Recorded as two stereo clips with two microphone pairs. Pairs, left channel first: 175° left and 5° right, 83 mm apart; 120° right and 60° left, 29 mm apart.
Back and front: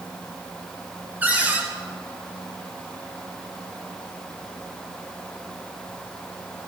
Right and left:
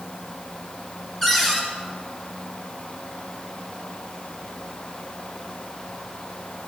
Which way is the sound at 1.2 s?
45° right.